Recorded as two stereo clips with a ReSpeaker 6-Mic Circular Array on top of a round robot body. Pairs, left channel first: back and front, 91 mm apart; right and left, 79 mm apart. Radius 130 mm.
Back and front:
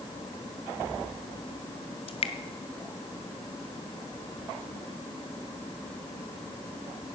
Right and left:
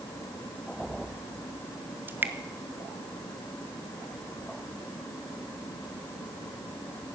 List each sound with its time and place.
2.1 s dripping: 155° left, 0.6 m